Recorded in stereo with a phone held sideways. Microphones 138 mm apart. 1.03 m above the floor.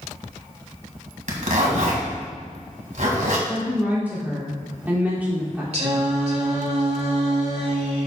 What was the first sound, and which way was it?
A zipper, 65° right (ahead or behind).